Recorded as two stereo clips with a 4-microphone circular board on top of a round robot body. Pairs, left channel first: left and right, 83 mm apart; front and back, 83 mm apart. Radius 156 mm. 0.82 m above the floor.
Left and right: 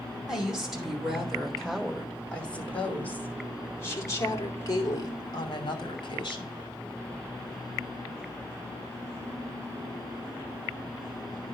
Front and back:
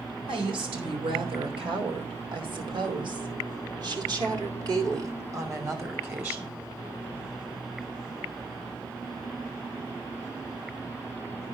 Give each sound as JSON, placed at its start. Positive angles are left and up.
{"t": 0.3, "sound": "a woman speaking", "azimuth_deg": -175, "distance_m": 4.0}